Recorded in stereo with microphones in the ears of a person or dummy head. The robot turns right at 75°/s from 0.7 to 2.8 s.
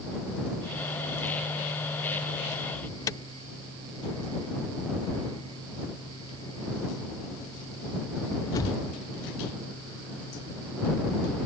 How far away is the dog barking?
No dog barking in this recording.